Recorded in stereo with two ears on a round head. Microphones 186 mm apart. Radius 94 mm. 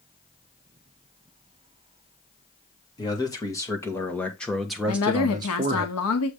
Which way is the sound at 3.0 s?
20° left (ahead or behind).